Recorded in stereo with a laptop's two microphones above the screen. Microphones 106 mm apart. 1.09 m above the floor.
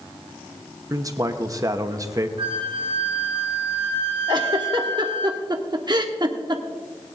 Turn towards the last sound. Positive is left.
turn(degrees=-40)  # may be behind; listen again after turning